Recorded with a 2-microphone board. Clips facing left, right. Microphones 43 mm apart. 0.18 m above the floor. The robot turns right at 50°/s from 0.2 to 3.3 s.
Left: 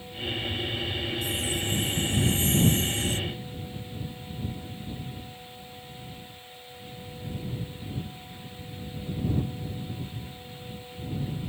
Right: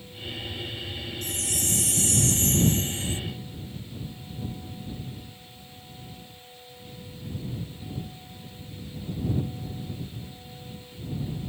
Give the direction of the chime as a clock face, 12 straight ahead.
4 o'clock.